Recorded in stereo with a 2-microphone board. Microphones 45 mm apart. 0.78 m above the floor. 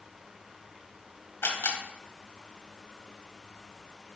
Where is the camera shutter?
75° left (ahead or behind), 1.5 m.